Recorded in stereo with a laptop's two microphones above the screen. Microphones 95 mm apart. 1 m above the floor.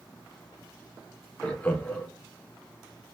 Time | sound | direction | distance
1.4 | laughter | 15° left (ahead or behind) | 0.7 m